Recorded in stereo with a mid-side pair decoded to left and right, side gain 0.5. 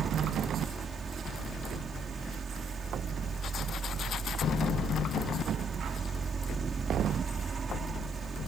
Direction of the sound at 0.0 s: 30° right.